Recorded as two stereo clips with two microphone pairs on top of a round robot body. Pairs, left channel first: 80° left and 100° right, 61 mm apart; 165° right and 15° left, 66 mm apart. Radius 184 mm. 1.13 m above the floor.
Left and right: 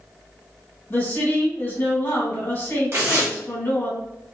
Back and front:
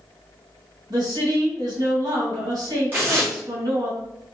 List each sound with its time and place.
0.9 s a woman speaking: 20° left, 2.5 m
2.9 s tearing paper: 45° right, 1.2 m